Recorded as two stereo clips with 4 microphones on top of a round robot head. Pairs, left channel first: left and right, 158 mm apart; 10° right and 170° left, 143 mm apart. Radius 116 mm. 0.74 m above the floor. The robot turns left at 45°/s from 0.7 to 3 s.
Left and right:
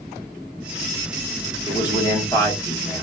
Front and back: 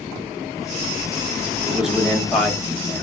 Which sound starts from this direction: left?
A man speaking, at 1.7 s.